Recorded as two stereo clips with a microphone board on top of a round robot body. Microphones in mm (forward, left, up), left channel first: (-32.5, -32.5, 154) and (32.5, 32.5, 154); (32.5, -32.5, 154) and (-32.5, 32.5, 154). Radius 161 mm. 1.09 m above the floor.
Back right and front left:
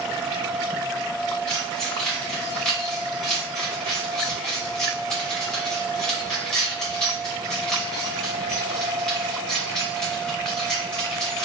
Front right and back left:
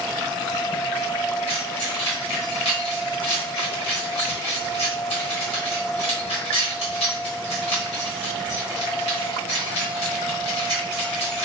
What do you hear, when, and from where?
1.5 s keys jangling: 50° right, 1.0 m